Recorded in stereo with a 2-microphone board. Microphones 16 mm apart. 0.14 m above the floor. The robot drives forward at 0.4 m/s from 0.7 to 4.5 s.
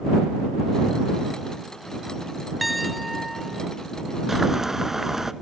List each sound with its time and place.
2.6 s a piano: 5° right (ahead or behind), 1.3 m; by 3.6 s centre (ahead or behind), 1.7 m
4.3 s boiling: 25° right (ahead or behind), 1.1 m